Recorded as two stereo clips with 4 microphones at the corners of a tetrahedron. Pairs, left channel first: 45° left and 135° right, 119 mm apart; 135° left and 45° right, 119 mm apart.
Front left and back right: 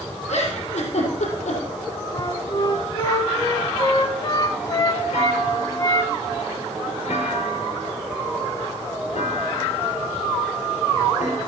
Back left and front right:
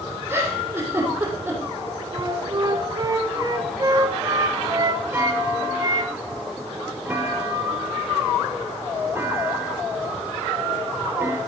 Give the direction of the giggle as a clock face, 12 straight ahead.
11 o'clock.